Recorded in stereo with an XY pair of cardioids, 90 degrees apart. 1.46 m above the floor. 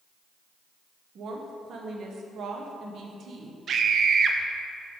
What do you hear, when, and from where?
1.1 s a woman speaking: 65° right, 1.3 m
3.7 s a scream: 60° right, 1.0 m